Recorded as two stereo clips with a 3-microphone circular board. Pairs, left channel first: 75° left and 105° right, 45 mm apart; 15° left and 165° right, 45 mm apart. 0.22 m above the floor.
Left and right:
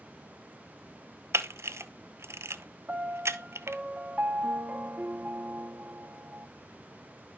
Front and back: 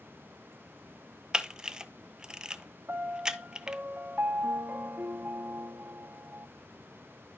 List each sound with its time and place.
1.3 s a camera shutter: 90° right, 0.8 m
2.9 s a piano: 150° right, 0.9 m